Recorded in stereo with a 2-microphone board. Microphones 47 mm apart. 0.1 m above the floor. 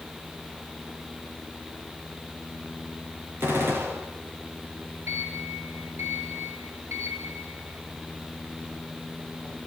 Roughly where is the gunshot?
Right.